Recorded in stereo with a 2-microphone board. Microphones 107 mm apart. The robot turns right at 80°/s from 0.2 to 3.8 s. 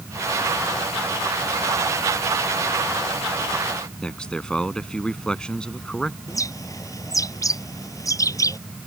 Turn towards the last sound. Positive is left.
turn(degrees=30)  # may be behind; listen again after turning